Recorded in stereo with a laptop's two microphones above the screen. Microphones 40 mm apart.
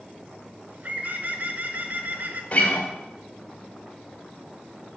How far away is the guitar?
About 2 m.